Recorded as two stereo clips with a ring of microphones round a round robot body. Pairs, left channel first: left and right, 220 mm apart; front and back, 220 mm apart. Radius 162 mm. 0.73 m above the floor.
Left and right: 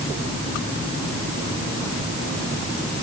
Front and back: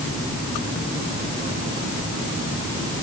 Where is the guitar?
No guitar in this recording.